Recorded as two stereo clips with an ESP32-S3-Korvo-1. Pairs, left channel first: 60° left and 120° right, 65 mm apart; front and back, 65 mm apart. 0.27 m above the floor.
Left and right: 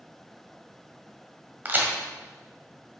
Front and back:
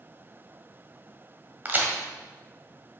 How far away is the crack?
About 1.4 m.